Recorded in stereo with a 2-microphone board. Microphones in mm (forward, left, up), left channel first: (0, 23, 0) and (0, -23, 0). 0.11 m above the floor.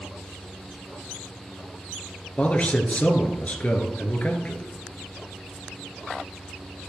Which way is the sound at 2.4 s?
30° left (ahead or behind).